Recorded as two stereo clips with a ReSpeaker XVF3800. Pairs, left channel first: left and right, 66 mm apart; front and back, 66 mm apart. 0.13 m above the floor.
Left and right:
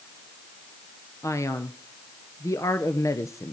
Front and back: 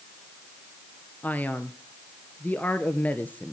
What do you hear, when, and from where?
1.2 s a man speaking: 60° left, 2.0 m